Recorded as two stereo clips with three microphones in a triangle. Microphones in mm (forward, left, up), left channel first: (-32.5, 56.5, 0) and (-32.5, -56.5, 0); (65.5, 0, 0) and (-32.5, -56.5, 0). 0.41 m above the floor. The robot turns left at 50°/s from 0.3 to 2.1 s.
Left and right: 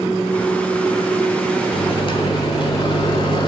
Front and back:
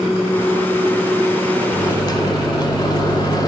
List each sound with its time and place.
1.7 s a microwave: 90° left, 1.7 m; by 3.5 s 70° left, 1.7 m